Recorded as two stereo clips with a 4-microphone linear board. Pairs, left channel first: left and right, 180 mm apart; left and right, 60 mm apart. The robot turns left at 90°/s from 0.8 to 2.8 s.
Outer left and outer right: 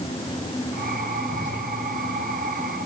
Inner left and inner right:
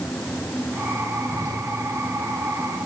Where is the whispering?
70° right (ahead or behind), 5.5 m; by 1.6 s 75° right (ahead or behind), 5.5 m.